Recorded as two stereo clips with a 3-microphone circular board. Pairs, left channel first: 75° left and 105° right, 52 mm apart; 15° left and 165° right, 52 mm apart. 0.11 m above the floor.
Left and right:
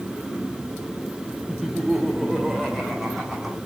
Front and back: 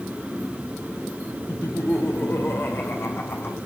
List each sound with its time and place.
1.5 s laughter: 10° right, 4 m; by 3.6 s 20° right, 6.5 m